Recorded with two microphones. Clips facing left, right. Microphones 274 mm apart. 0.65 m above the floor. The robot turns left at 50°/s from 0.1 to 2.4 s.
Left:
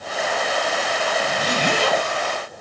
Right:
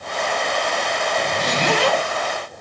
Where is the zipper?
65° right, 4.5 m; by 2.0 s 110° right, 4.5 m.